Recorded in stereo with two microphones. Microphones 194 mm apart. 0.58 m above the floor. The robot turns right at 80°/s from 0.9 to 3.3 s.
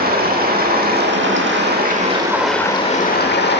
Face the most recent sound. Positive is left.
turn(degrees=65)